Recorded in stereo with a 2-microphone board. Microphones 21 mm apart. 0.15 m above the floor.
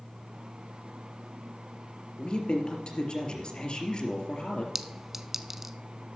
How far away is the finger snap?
I don't hear a finger snap.